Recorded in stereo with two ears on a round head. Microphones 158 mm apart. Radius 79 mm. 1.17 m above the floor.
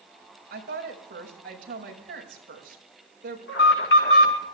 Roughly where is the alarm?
Left.